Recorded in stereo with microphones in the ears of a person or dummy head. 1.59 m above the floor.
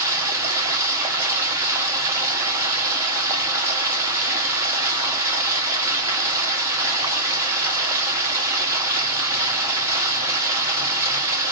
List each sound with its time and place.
0.0 s running water: 15° right (ahead or behind), 0.8 m